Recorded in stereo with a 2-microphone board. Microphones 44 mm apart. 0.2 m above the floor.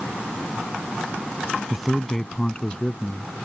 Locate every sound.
1.7 s a man speaking: 10° right (ahead or behind); by 3.3 s 35° left (ahead or behind)